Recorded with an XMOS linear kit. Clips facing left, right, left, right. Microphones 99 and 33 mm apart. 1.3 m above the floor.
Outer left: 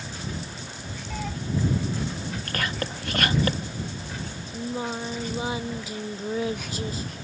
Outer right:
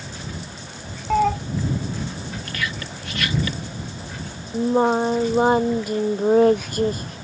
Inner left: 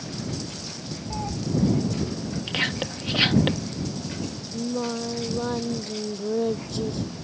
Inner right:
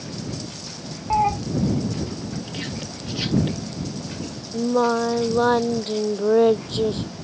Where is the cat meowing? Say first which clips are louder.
Outer right 16 dB, inner right 13 dB; 70° right (ahead or behind).